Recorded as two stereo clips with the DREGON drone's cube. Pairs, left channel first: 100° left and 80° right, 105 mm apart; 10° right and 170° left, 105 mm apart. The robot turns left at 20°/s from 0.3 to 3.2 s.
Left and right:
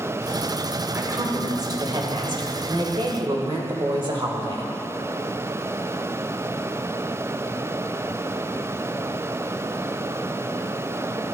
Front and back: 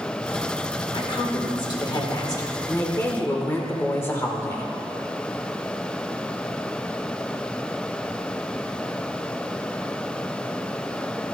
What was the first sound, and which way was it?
A woman speaking, 30° right.